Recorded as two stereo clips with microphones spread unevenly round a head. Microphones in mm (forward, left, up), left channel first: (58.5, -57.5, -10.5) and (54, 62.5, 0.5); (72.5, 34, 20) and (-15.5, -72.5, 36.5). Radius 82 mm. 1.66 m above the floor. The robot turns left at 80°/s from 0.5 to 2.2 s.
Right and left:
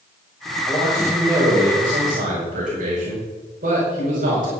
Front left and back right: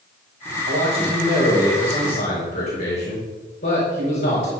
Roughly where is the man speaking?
Behind right.